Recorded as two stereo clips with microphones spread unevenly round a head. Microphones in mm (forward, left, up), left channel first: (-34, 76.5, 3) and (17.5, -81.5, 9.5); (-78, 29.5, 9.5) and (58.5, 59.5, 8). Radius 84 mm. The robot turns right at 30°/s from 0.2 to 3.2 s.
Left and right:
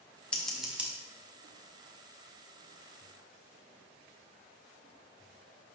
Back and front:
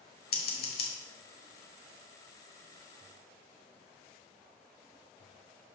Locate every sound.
0.3 s scissors: 170° right, 1.3 m; by 0.9 s 150° right, 1.3 m